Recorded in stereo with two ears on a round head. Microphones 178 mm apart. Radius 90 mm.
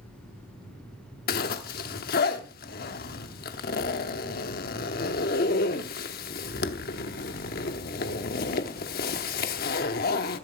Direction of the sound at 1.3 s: 50° left (ahead or behind).